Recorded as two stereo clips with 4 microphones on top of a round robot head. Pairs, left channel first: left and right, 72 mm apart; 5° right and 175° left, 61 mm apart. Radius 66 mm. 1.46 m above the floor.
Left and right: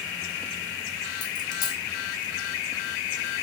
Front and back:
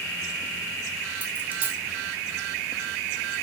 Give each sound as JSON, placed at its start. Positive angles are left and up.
{"t": 1.2, "sound": "a dropped coin", "azimuth_deg": 115, "distance_m": 2.5}